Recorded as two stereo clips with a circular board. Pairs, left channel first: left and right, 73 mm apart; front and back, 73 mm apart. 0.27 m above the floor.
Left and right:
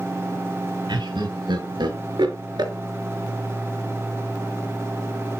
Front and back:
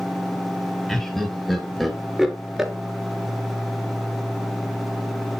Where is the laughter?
85° right, 4.5 m; by 2.7 s 95° right, 3.5 m.